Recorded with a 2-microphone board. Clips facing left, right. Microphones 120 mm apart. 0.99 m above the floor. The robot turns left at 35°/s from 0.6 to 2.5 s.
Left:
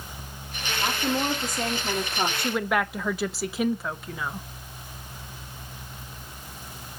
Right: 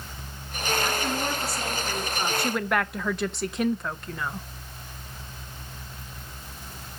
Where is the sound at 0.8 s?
155° left, 2.5 m; by 2.3 s 105° left, 2.5 m.